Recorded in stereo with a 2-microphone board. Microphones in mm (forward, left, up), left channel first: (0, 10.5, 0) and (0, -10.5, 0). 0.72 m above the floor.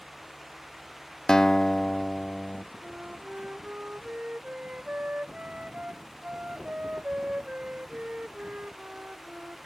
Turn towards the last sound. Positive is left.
turn(degrees=-80)